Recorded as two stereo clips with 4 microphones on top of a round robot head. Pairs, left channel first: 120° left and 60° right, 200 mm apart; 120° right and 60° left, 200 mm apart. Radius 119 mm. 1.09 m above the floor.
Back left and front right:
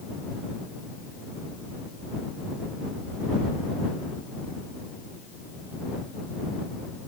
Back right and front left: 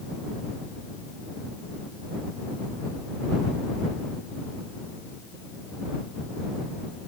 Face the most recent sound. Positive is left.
No sound to turn to.